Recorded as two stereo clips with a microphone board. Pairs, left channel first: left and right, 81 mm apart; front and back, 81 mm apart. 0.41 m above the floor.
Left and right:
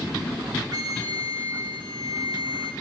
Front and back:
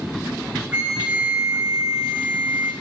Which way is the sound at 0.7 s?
110° right.